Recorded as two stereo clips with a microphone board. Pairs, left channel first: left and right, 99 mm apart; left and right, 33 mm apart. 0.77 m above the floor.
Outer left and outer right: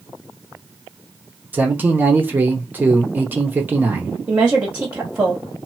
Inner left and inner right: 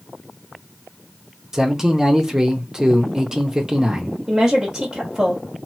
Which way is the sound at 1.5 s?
20° right (ahead or behind).